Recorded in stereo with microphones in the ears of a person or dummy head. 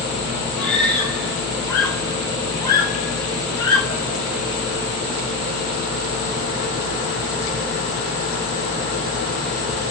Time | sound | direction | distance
0.6 | a scream | 10° left (ahead or behind) | 5.5 m